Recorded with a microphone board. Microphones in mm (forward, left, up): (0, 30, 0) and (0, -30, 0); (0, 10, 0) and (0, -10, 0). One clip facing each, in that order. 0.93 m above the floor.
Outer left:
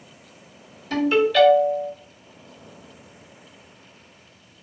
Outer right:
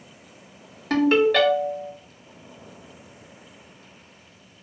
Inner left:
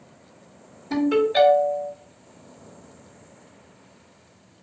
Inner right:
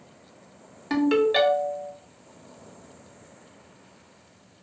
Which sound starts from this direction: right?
A ringtone, at 0.9 s.